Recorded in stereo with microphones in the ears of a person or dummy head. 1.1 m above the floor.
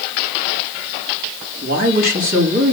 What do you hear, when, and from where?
1.6 s a woman speaking: 45° right (ahead or behind), 2.5 m